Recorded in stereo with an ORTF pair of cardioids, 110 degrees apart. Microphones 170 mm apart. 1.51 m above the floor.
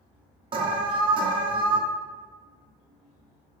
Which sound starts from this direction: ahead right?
An alarm, at 0.5 s.